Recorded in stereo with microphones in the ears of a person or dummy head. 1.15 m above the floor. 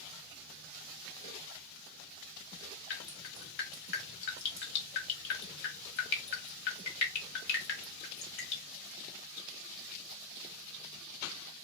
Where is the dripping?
70° left (ahead or behind), 1.4 m.